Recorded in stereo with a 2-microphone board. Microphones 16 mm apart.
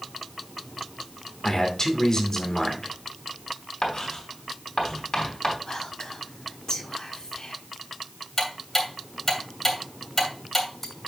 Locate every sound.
1.4 s a man speaking: 35° left (ahead or behind), 2.5 m
3.8 s writing: 40° left (ahead or behind), 3.5 m
5.7 s whispering: 45° left (ahead or behind), 1.7 m
8.4 s ticking: 20° left (ahead or behind), 2.5 m